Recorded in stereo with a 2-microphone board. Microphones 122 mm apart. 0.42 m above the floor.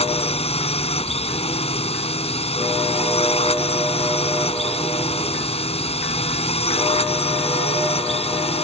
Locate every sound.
0.0 s a drone: 55° left (ahead or behind)